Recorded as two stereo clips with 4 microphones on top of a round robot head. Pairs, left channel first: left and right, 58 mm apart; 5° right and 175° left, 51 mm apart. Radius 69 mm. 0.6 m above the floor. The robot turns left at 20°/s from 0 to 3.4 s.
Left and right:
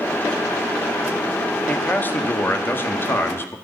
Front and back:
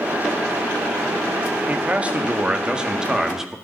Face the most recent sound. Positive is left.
turn(degrees=95)